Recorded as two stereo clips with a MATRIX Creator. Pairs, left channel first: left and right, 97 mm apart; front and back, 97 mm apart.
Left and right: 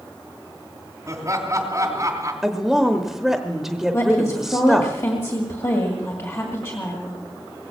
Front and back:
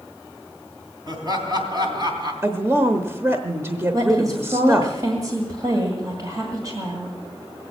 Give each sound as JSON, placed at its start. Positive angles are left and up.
{"t": 1.1, "sound": "laughter", "azimuth_deg": -140, "distance_m": 3.0}
{"t": 2.4, "sound": "a woman speaking", "azimuth_deg": -170, "distance_m": 0.9}
{"t": 3.9, "sound": "a woman speaking", "azimuth_deg": 140, "distance_m": 1.9}